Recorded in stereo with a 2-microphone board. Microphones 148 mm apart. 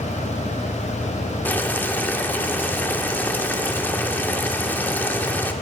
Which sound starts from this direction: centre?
Boiling, at 1.4 s.